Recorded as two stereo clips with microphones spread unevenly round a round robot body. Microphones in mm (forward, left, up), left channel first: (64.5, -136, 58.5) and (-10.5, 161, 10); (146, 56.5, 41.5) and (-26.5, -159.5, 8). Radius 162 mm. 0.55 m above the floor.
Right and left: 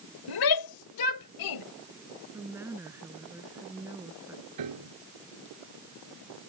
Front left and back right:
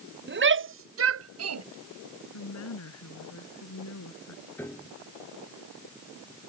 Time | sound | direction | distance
0.3 | a shout | 85° right | ?
2.3 | a woman speaking | 20° left | ?
4.6 | a piano | 135° left | ?